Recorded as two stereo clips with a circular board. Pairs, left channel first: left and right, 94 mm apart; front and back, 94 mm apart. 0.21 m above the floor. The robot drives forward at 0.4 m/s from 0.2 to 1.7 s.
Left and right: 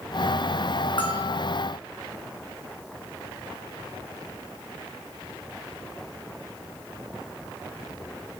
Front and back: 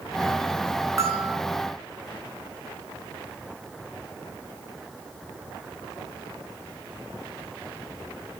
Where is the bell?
120° left, 5 m; by 1.4 s 125° left, 5 m.